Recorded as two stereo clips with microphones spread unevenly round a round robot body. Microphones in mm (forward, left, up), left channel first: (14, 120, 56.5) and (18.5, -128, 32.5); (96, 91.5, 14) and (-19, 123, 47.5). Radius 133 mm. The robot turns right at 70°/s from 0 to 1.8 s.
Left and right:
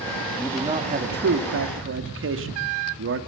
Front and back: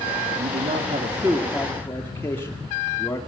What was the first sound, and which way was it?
A man speaking, straight behind.